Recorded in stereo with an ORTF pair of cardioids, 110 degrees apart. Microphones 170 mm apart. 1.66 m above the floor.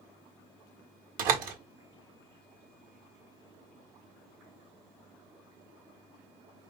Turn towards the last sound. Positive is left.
turn(degrees=-65)